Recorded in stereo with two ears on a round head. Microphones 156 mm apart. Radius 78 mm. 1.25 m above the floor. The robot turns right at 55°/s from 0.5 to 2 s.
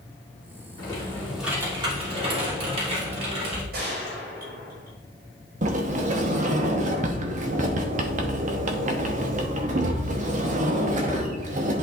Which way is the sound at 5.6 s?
45° right (ahead or behind).